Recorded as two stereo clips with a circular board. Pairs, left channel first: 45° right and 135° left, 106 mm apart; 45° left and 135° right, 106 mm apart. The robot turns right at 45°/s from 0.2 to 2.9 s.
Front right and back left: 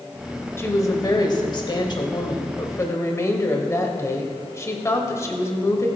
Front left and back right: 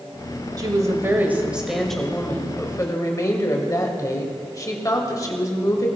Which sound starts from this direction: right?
A woman speaking, at 0.6 s.